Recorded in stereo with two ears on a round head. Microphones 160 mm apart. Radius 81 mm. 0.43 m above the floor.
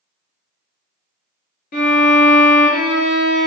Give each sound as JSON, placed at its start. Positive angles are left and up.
{"t": 1.7, "sound": "a violin", "side_deg": 55, "distance_m": 1.2}